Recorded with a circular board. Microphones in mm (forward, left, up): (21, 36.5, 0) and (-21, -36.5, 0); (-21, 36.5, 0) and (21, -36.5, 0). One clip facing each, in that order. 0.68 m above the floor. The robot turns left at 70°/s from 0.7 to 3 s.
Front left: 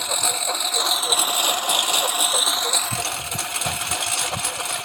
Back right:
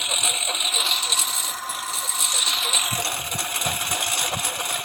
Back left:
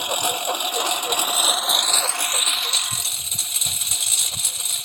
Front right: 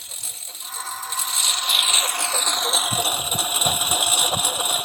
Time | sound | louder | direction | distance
0.0 | a lawn mower | front left 3 dB, back left 21 dB | 135° left | ?